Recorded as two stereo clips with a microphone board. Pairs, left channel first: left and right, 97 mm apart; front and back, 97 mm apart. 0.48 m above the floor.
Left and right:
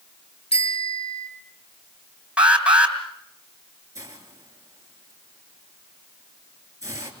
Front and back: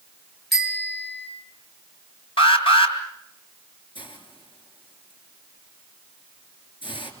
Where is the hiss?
35° right, 3 m.